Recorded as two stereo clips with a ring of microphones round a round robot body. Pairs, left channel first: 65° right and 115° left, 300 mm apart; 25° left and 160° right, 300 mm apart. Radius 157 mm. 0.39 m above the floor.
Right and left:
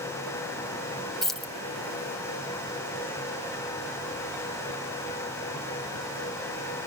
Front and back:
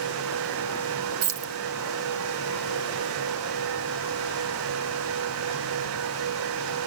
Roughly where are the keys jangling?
Behind right.